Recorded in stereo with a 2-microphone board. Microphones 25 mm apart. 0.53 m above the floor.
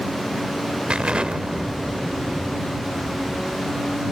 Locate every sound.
0.9 s an explosion: 45° right (ahead or behind)